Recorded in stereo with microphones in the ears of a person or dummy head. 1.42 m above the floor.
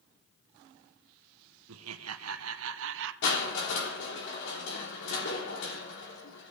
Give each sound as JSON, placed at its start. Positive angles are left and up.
{"t": 1.7, "sound": "laughter", "side_deg": -70, "distance_m": 0.9}
{"t": 3.2, "sound": "crushing", "side_deg": 70, "distance_m": 3.5}